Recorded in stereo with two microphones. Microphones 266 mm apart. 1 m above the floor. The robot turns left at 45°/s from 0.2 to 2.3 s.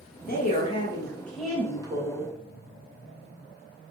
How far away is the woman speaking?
About 1.0 m.